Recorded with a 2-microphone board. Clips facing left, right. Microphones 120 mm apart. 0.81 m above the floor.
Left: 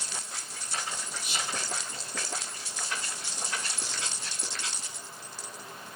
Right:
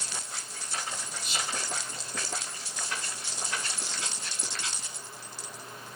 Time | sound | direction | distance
1.2 | whispering | 55° left (ahead or behind) | 1.1 m